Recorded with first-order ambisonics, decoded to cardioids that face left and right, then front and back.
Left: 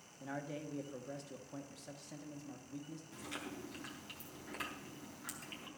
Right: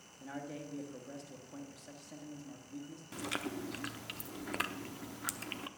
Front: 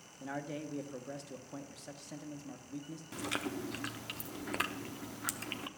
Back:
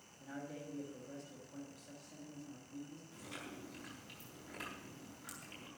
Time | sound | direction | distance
0.2 | a man speaking | 15° left | 1.1 m
3.1 | chewing | 35° right | 0.7 m